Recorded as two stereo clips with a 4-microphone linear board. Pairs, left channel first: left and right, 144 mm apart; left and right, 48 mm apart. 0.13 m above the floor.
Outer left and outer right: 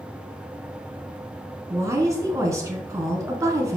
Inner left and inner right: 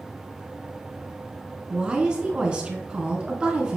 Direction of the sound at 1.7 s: 20° right (ahead or behind).